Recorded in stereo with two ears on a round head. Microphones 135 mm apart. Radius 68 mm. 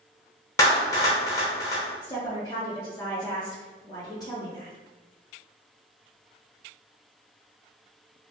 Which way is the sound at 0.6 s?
20° left (ahead or behind).